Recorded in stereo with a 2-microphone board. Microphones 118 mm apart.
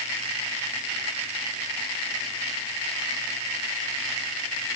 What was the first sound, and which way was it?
Only background noise.